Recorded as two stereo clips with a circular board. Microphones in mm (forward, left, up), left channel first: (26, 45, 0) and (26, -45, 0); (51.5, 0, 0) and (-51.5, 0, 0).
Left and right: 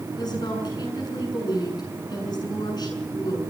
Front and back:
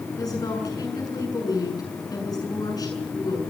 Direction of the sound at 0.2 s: 50° left.